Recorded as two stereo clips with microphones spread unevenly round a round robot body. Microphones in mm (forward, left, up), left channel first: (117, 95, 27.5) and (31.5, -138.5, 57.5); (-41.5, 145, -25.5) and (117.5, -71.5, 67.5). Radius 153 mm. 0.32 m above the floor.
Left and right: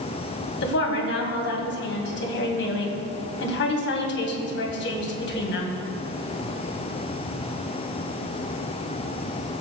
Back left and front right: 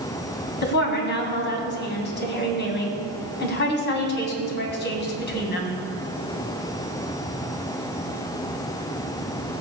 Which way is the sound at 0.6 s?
100° left.